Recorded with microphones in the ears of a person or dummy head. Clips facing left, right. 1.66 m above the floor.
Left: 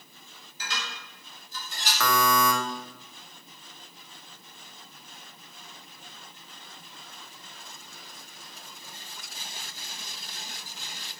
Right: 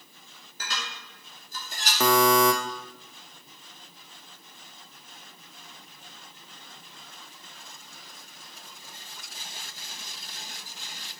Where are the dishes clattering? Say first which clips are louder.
Even; 50° right (ahead or behind), 2.5 m.